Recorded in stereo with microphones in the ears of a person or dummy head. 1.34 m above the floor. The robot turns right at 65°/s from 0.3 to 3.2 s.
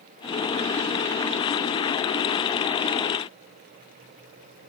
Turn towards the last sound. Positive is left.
No sound to turn to.